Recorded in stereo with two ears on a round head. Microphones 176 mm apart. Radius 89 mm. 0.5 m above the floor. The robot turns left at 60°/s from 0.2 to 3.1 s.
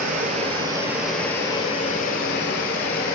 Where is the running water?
125° right, 0.7 m; by 3.1 s 60° left, 0.7 m.